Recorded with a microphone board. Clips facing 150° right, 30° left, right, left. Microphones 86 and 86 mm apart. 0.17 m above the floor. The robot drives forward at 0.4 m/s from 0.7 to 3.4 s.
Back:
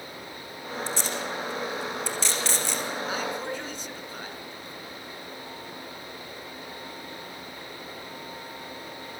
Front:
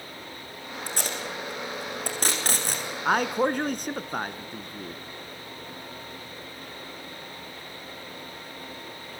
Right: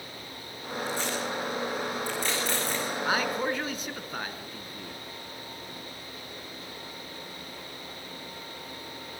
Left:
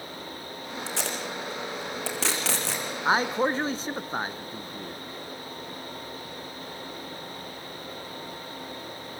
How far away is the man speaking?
About 1.9 m.